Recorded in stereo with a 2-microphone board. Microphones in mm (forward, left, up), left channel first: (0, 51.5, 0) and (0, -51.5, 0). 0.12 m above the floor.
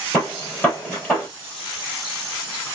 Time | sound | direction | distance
0.1 | a gunshot | 10° left (ahead or behind) | 3 m